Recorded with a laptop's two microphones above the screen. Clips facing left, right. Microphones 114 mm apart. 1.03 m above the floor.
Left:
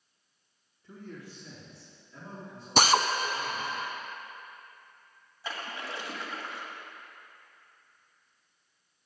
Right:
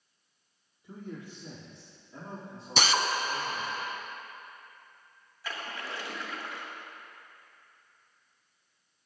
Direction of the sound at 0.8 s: 15° right (ahead or behind).